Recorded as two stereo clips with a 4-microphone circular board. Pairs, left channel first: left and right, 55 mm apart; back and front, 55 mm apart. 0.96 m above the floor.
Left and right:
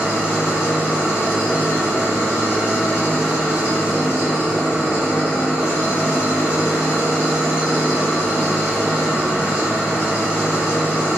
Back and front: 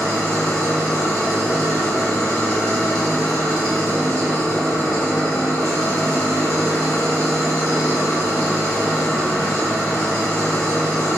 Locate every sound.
0.0 s an engine running: 25° right, 1.4 m